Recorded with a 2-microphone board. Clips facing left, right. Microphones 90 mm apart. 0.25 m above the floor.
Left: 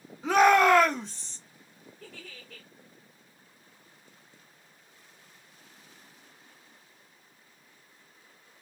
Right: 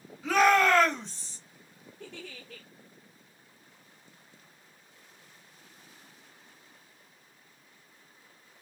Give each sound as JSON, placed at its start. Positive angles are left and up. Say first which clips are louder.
{"t": 0.2, "sound": "a shout", "louder": "left 3 dB", "side_deg": 25, "distance_m": 1.2}
{"t": 2.0, "sound": "a giggle", "louder": "right 4 dB", "side_deg": -85, "distance_m": 2.5}